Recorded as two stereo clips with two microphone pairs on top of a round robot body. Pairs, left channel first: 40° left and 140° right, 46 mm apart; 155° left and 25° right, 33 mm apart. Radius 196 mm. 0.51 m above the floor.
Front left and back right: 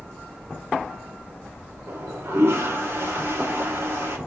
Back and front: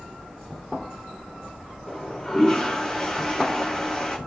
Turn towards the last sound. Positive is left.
turn(degrees=-135)